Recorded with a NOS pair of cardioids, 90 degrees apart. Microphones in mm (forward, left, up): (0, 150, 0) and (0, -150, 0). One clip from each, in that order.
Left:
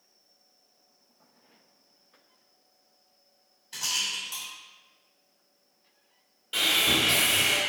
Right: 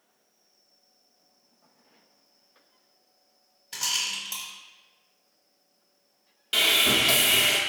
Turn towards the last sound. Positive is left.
turn(degrees=-55)